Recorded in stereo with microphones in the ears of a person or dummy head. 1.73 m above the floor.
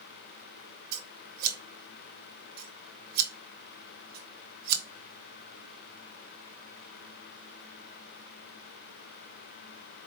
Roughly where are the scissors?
Right.